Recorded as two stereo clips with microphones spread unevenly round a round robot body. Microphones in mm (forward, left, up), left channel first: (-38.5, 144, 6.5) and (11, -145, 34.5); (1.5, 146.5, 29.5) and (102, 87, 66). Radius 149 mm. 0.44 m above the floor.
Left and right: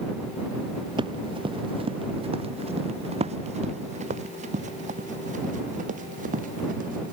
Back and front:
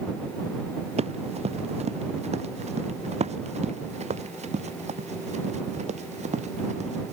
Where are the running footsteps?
5° right; by 7.1 s 15° right.